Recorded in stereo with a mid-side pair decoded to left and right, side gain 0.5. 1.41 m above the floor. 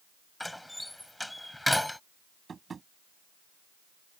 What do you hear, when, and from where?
0.4 s a door slam: 5° left
2.5 s tapping: 35° right